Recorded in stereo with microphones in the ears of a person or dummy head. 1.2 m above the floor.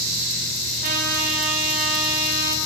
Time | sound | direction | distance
0.8 | a trumpet | 50° right (ahead or behind) | 6 m